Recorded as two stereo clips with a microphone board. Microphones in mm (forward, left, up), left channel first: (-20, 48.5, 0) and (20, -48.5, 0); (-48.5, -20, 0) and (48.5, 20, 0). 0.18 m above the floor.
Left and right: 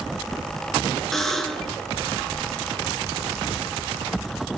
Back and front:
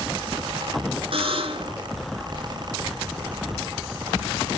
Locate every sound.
1.1 s a buzzer: 25° left, 1.9 m